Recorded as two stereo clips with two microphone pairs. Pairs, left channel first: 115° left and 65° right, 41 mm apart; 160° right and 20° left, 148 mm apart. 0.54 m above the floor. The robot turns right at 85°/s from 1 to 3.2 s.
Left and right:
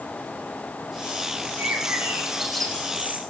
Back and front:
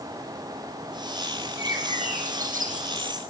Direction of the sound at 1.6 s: 55° right.